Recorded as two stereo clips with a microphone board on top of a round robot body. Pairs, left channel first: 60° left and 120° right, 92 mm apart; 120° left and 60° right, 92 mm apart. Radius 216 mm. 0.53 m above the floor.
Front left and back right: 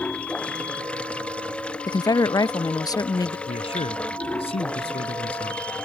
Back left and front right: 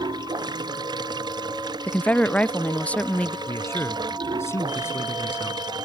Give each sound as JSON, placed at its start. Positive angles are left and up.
{"t": 0.0, "sound": "running water", "azimuth_deg": -20}
{"t": 1.9, "sound": "a woman speaking", "azimuth_deg": 50}
{"t": 3.5, "sound": "a man speaking", "azimuth_deg": 60}